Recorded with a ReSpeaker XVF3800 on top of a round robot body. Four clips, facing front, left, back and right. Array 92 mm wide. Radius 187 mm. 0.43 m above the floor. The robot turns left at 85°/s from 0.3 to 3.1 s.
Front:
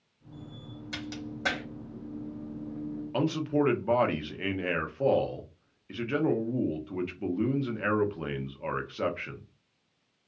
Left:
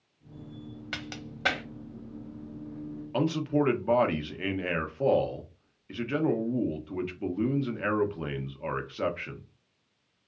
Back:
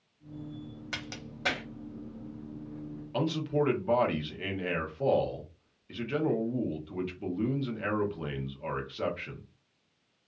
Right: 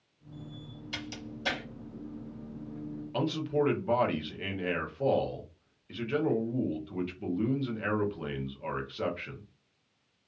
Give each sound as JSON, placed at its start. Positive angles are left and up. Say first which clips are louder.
{"t": 0.9, "sound": "a crack", "louder": "even, front 5 dB", "azimuth_deg": 120, "distance_m": 1.1}
{"t": 3.1, "sound": "a man speaking", "louder": "left 3 dB, front 2 dB", "azimuth_deg": 45, "distance_m": 0.9}